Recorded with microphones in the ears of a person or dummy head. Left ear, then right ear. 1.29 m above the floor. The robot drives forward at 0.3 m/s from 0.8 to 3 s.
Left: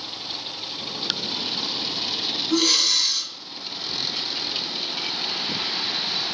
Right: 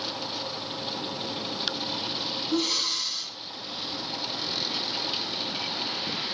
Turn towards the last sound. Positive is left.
turn(degrees=85)